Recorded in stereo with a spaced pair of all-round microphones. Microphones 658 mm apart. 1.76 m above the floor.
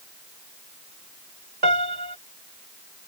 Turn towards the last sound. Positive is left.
turn(degrees=-85)